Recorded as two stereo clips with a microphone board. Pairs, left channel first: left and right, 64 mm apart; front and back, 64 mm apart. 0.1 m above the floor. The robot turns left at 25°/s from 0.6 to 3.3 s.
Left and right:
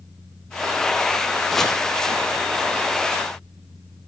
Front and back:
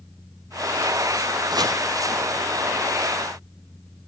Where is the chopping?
175° left, 3.5 m; by 1.8 s 170° left, 3.5 m.